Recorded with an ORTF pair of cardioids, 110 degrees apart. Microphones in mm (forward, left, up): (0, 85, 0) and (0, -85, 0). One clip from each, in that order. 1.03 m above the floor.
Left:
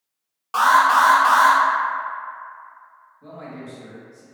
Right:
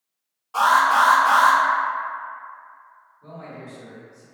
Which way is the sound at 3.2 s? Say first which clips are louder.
Left 2 dB; 45° left.